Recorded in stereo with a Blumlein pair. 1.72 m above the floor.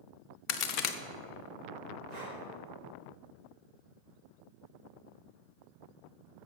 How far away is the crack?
About 0.9 m.